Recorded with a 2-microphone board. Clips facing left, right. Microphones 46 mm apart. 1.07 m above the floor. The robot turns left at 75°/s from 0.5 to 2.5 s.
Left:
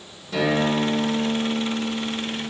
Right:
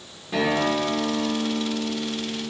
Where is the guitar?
155° right, 1.8 m; by 2.5 s 55° left, 1.8 m.